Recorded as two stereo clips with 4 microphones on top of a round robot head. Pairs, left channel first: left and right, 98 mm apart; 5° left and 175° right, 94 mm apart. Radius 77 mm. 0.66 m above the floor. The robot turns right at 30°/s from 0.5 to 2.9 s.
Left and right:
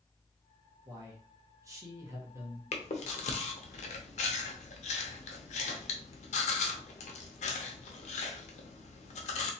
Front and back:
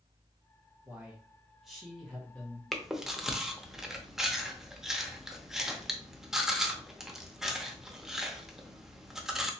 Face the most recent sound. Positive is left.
turn(degrees=100)